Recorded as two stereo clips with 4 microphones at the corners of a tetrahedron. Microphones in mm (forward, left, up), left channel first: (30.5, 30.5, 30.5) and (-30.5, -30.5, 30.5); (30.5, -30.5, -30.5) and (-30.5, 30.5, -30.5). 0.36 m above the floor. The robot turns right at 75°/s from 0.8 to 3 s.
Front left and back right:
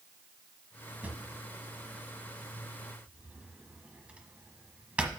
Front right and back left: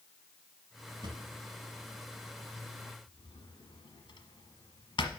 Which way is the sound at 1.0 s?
150° left.